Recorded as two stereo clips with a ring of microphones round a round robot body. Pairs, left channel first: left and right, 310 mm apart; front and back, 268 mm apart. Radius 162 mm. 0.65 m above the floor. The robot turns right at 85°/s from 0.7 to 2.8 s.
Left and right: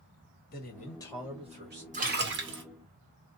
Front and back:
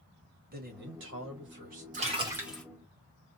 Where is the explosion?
No explosion in this recording.